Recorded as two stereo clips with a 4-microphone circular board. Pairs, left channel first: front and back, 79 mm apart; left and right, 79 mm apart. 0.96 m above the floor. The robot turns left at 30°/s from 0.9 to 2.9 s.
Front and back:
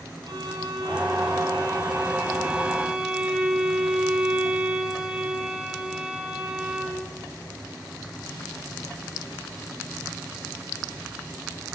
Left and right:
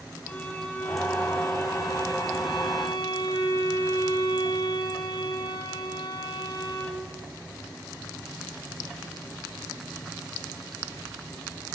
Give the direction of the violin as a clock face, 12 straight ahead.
7 o'clock.